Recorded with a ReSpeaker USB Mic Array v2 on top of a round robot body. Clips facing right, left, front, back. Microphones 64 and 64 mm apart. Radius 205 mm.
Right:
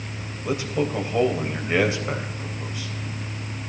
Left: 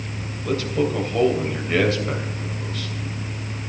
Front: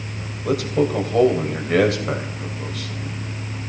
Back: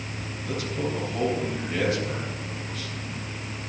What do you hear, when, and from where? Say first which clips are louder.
0.5 s a man speaking: left 3 dB, front 10 dB; 15° right, 3 m